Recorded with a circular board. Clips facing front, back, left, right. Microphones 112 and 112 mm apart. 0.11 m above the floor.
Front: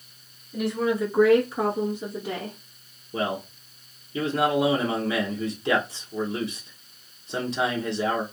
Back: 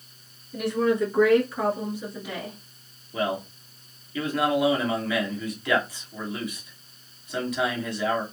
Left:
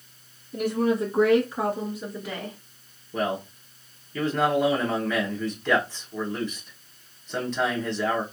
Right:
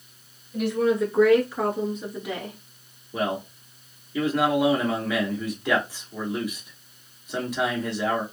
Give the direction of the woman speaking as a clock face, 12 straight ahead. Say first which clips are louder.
Back 2 dB, right 1 dB; 9 o'clock.